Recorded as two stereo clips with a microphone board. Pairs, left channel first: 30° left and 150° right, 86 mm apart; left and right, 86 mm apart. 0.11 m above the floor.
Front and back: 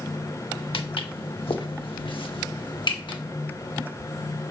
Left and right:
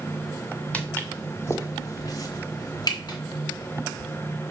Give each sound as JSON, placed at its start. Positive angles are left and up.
{"t": 0.7, "sound": "footsteps", "azimuth_deg": 15, "distance_m": 1.1}